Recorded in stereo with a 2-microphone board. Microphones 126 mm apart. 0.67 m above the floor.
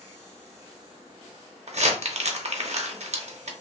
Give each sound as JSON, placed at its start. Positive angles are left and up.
{"t": 1.7, "sound": "crumpling", "side_deg": -60, "distance_m": 0.5}